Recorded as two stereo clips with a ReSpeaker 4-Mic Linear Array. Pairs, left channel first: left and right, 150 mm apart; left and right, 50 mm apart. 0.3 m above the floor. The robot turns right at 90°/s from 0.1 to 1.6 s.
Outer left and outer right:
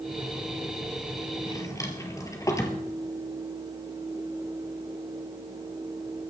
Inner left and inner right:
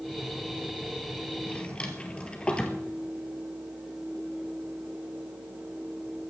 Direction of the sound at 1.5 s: 35° left (ahead or behind).